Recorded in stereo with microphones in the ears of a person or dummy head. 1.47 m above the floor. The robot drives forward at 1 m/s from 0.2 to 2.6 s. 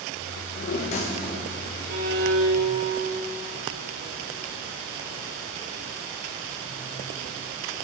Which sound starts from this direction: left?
A drawer, at 0.4 s.